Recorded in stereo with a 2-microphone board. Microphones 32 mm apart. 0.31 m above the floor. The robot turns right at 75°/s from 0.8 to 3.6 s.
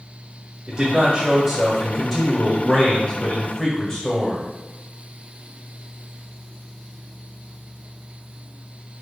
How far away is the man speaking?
About 0.9 m.